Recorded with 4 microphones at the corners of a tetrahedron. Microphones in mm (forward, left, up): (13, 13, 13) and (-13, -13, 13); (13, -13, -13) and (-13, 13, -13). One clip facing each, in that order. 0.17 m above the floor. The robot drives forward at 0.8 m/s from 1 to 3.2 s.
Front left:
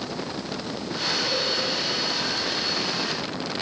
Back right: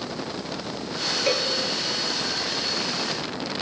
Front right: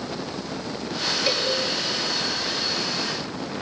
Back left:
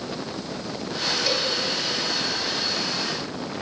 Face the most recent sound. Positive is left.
turn(degrees=-120)